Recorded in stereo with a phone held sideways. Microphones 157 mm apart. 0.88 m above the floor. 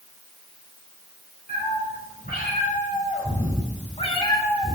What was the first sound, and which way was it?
A cat meowing, 70° left (ahead or behind).